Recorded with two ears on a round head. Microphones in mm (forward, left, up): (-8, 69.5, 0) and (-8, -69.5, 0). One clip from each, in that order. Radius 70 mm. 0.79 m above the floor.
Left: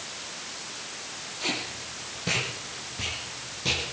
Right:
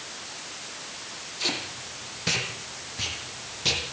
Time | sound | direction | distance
1.4 | tape being pulled | 35° right (ahead or behind) | 8.5 m